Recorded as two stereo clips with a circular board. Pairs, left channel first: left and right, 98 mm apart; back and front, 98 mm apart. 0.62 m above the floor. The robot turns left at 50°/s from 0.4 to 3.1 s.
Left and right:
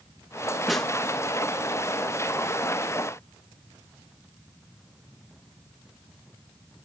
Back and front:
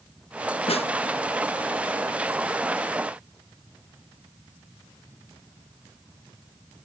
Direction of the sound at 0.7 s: Straight behind.